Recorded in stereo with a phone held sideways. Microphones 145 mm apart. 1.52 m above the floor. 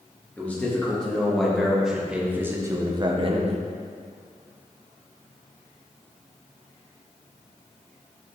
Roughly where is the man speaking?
Centre.